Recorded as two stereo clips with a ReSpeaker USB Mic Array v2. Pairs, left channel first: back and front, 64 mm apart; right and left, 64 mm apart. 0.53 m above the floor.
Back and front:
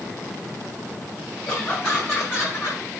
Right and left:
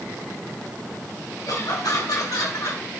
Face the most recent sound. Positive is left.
turn(degrees=-130)